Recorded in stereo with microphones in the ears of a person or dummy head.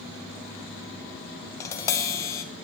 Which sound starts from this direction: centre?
Tapping, at 1.6 s.